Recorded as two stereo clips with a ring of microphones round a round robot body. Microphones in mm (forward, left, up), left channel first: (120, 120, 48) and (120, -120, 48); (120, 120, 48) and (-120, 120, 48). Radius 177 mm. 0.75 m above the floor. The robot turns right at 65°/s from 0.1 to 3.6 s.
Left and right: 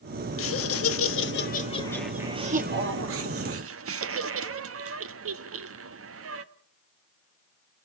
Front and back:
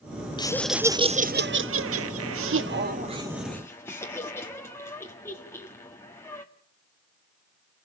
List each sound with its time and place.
0.4 s laughter: 70° left, 1.2 m; by 6.5 s 80° right, 1.2 m